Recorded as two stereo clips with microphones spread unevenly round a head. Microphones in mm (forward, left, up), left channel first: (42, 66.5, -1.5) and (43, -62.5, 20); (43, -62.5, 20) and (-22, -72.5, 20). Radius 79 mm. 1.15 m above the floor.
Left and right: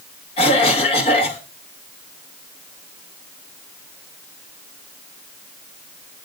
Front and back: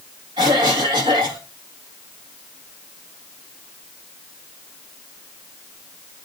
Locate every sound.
0.4 s a cough: 145° left, 1.4 m